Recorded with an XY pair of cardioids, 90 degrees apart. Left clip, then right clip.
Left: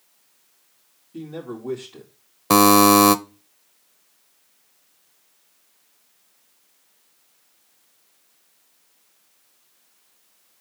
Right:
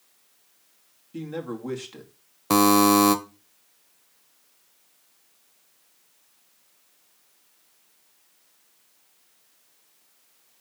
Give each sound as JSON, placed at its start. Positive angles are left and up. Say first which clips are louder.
{"t": 1.1, "sound": "a man speaking", "louder": "right 1 dB", "azimuth_deg": -70, "distance_m": 2.5}
{"t": 2.5, "sound": "a buzzer", "louder": "left 5 dB", "azimuth_deg": 35, "distance_m": 0.7}